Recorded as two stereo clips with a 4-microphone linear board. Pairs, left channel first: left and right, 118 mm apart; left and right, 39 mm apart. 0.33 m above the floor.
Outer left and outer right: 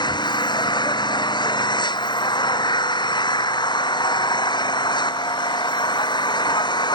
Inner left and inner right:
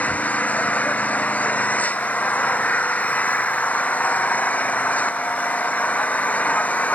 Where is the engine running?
40° left (ahead or behind).